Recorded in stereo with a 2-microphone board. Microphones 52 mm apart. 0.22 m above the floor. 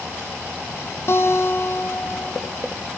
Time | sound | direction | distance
1.1 | a guitar | 55° left (ahead or behind) | 3 m